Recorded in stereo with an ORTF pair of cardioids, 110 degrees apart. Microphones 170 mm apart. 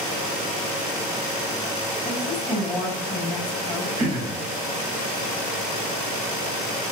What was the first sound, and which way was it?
A woman speaking, 10° left.